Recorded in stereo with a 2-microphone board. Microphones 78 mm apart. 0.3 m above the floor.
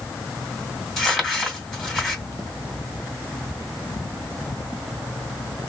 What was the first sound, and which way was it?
Crumpling, 5° left (ahead or behind).